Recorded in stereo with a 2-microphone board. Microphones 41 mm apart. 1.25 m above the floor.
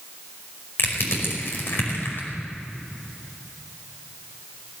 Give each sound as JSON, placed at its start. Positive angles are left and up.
{"t": 0.8, "sound": "crushing", "side_deg": 65, "distance_m": 5.0}